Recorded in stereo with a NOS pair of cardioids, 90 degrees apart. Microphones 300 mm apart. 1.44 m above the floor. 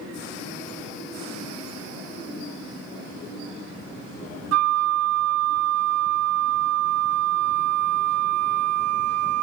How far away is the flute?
About 0.5 m.